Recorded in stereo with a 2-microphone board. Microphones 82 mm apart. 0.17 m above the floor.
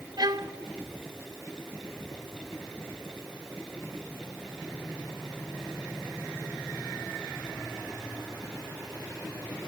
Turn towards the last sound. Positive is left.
turn(degrees=-55)  # may be behind; listen again after turning